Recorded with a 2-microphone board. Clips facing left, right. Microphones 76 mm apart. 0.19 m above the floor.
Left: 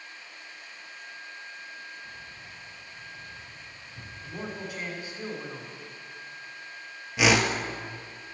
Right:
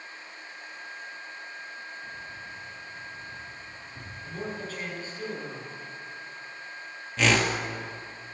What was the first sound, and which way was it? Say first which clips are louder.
Keys jangling: right 4 dB; 65° right (ahead or behind).